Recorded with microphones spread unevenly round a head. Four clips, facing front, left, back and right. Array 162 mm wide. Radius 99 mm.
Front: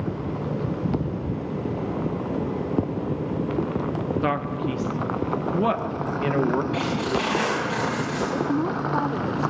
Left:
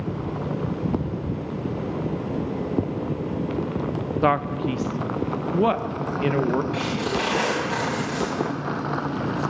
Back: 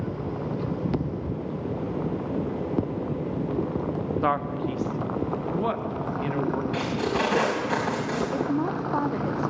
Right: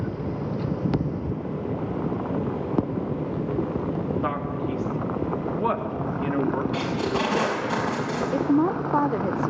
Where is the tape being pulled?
Straight behind, 5.5 m.